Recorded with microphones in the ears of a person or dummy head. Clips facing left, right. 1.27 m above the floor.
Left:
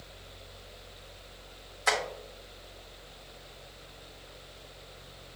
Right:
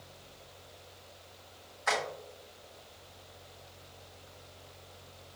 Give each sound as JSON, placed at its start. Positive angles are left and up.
{"t": 1.9, "sound": "tapping", "side_deg": 45, "distance_m": 1.4}